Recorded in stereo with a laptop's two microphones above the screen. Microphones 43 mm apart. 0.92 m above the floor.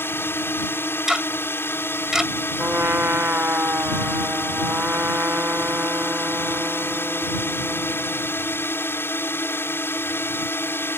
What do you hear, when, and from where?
0.0 s a drone: 60° left (ahead or behind)
1.1 s ticking: 10° right (ahead or behind)
2.6 s a trumpet: 60° right (ahead or behind)